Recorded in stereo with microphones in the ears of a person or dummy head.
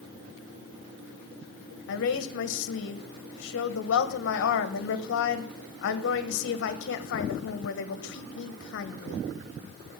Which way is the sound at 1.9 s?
65° left (ahead or behind).